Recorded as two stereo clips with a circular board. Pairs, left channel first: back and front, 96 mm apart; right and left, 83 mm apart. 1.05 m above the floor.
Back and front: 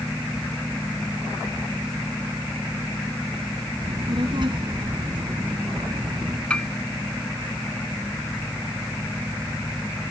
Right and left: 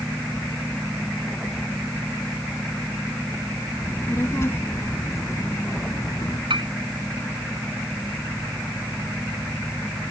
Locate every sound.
3.8 s a child speaking: 30° right; by 6.4 s 40° right
6.5 s a piano: 100° left